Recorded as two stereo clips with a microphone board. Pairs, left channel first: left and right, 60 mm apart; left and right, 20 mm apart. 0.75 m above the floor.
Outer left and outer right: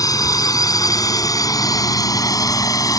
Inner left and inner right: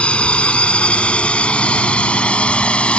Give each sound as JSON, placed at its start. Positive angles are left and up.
{"t": 0.0, "sound": "a drone", "side_deg": 85}